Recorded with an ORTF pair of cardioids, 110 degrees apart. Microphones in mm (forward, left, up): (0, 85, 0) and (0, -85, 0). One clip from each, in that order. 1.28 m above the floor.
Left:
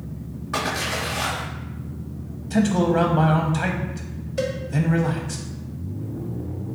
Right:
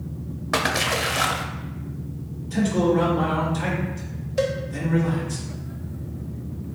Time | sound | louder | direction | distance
0.5 | a splash | right 3 dB | 40° right | 0.5 m
2.5 | a man speaking | left 1 dB | 50° left | 0.5 m
4.4 | a cowbell | right 2 dB | 10° right | 0.6 m